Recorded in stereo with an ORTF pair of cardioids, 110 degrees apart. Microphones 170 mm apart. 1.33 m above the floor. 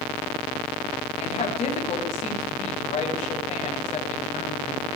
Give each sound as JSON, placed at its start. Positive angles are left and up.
{"t": 1.2, "sound": "a woman speaking", "azimuth_deg": 40, "distance_m": 7.5}